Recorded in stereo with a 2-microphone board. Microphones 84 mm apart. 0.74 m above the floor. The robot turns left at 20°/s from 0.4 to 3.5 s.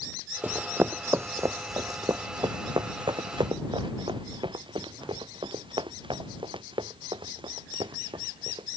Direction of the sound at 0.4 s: 20° right (ahead or behind).